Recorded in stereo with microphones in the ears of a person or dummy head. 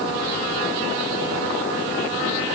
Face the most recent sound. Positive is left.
No sound to turn to.